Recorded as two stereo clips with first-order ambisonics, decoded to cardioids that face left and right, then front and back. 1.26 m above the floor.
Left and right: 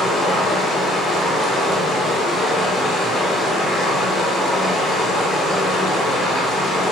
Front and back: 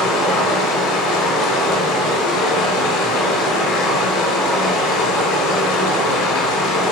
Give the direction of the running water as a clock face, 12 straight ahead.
11 o'clock.